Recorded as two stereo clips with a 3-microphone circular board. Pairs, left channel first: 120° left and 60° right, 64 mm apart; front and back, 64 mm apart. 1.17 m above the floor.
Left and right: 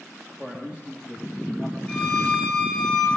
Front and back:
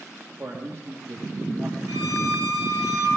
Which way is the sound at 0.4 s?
130° right.